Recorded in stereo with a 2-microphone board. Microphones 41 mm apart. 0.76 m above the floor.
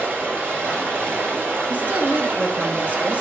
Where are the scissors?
No scissors in this recording.